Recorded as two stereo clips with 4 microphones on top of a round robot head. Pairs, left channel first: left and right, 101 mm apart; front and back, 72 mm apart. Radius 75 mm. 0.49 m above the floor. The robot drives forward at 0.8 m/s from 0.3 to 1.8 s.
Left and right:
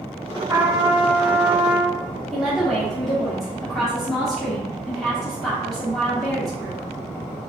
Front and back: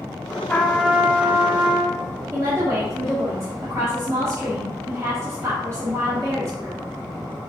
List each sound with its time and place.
0.5 s a trumpet: 60° right, 0.8 m; by 2.0 s 155° right, 1.2 m
2.3 s a woman speaking: 175° left, 1.3 m